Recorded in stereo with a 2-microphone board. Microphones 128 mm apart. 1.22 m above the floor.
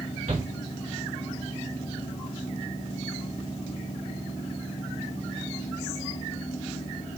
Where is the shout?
90° right, 3 m.